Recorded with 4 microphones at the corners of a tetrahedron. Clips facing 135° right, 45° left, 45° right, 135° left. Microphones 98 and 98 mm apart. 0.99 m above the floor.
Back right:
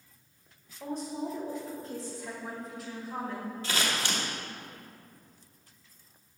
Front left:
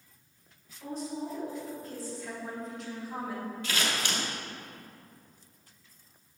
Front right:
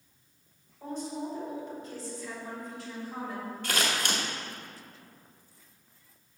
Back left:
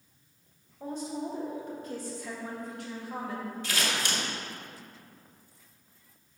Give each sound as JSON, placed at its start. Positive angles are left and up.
{"t": 0.8, "sound": "a woman speaking", "azimuth_deg": -170, "distance_m": 1.7}
{"t": 3.6, "sound": "scissors", "azimuth_deg": -80, "distance_m": 1.2}